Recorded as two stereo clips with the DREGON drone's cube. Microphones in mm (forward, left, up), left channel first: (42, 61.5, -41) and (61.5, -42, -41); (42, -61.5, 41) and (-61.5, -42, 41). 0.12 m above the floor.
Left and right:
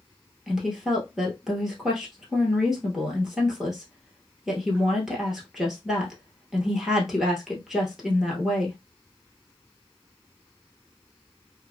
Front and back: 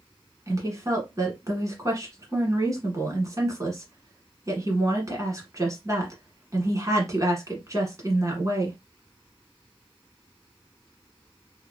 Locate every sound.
0.5 s a woman speaking: 160° right, 1.3 m